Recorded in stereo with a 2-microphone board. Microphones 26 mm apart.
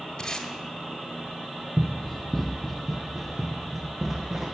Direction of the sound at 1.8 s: 20° left (ahead or behind).